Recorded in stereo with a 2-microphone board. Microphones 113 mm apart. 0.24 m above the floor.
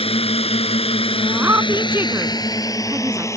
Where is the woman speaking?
20° right (ahead or behind).